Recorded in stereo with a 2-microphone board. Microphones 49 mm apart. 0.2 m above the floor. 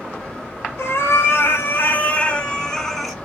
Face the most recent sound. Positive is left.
turn(degrees=0)  # may be behind; listen again after turning